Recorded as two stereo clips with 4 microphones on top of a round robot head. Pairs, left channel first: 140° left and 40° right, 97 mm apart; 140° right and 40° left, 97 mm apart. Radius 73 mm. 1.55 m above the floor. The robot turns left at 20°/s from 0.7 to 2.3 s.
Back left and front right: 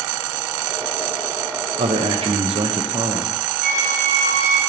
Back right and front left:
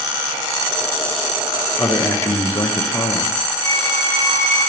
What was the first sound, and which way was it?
A man speaking, 65° right.